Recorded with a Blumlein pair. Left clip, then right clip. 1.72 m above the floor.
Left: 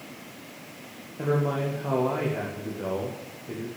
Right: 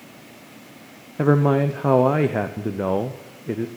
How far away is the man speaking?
About 0.8 m.